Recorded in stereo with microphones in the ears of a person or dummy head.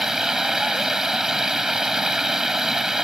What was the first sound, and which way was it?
Running water, 5° right (ahead or behind).